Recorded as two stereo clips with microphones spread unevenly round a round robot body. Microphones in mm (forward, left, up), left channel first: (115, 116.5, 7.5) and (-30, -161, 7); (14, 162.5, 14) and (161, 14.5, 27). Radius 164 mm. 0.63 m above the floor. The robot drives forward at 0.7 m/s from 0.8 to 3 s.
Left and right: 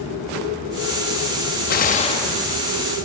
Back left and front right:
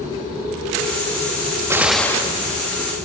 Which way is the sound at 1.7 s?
30° left.